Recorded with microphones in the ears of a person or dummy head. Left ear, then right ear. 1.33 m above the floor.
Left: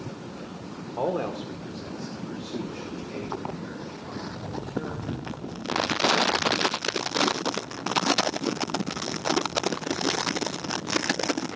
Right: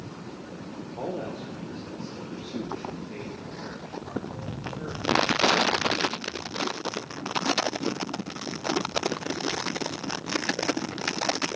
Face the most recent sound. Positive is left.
turn(degrees=-25)  # may be behind; listen again after turning